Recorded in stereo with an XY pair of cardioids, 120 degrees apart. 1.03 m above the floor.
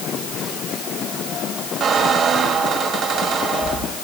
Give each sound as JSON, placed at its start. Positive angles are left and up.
{"t": 1.8, "sound": "a squeak", "azimuth_deg": -60, "distance_m": 2.0}